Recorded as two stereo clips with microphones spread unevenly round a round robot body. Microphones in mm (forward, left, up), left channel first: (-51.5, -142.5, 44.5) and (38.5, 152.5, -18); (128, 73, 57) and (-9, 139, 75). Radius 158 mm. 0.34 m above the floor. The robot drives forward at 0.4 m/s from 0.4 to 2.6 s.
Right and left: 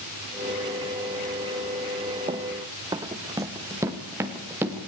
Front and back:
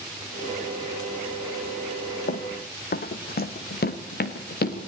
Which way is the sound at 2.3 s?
5° right.